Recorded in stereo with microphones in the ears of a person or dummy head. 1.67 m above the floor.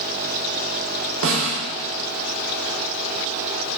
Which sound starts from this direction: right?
A snare drum, at 1.2 s.